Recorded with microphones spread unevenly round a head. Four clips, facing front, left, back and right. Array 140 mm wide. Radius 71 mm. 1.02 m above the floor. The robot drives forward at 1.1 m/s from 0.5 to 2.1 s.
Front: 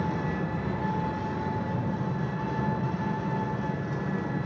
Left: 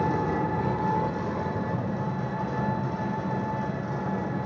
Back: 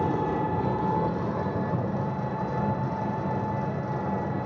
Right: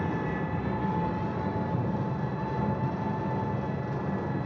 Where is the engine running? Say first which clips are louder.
Left 5 dB, back 4 dB; 145° left, 2 m; by 4.5 s 160° left, 3.5 m.